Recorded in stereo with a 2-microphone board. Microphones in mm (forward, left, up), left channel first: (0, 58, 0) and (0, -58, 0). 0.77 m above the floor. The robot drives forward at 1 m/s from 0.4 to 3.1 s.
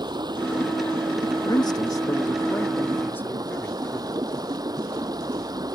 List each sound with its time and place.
0.0 s running water: 40° right (ahead or behind); by 5.7 s 35° right (ahead or behind)
1.4 s a man speaking: 40° left (ahead or behind); by 4.2 s 20° left (ahead or behind)